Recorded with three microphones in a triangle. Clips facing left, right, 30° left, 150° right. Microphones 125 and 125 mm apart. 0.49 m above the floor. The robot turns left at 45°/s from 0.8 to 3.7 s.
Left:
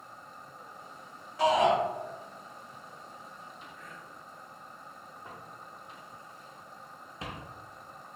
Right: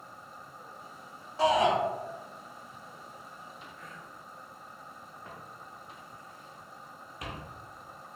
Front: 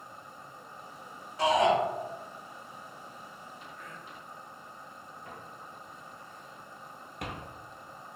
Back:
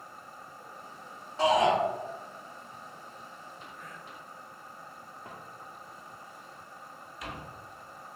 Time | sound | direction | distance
1.4 | a shout | 125° right | 1.5 m
3.8 | whispering | 140° right | 1.7 m
5.2 | footsteps | 170° left | 1.6 m